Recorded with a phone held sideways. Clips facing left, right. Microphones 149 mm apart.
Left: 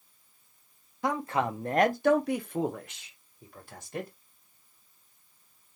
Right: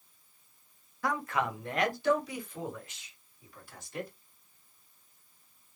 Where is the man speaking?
20° left (ahead or behind), 0.9 m; by 4.1 s 50° left (ahead or behind), 1.6 m.